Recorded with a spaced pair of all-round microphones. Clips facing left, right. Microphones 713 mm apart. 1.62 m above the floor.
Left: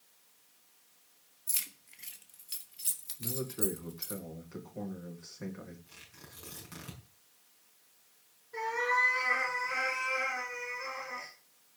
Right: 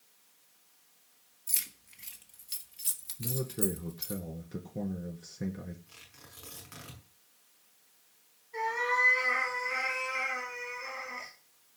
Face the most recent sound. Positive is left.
turn(degrees=40)  # may be behind; listen again after turning